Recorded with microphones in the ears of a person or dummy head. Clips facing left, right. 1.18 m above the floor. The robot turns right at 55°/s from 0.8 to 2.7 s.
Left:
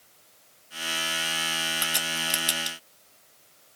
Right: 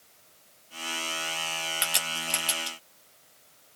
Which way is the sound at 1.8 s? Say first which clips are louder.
Left 3 dB; 20° right (ahead or behind).